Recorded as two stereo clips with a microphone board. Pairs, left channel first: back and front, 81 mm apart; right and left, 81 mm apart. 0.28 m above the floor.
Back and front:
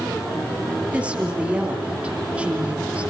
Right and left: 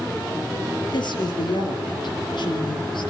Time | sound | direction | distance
0.9 | a woman speaking | 75° right | 5.5 m